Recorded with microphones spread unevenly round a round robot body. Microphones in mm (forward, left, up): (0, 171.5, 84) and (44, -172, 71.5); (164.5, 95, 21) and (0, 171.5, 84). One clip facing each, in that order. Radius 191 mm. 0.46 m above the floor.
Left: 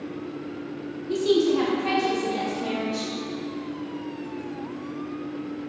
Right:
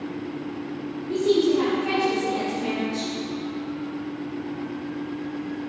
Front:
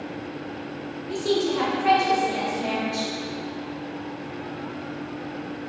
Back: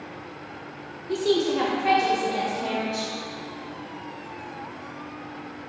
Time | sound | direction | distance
1.1 | a woman speaking | 110° left | 1.7 m